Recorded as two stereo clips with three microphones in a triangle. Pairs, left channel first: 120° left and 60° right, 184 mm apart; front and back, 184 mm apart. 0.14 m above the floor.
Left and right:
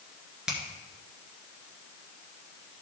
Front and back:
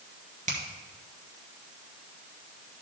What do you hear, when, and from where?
0.5 s a finger snap: 145° right, 1.9 m